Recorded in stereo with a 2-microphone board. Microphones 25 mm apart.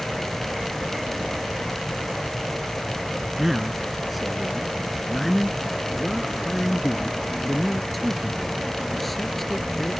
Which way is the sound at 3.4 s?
10° right (ahead or behind).